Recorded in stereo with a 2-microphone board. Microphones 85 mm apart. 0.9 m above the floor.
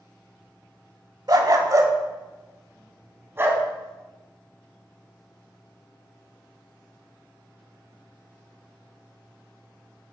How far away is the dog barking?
About 0.9 m.